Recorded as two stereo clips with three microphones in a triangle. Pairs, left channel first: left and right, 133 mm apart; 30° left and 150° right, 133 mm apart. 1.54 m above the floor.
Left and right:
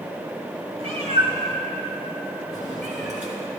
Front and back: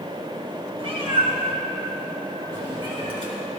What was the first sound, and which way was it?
A cat meowing, 115° right.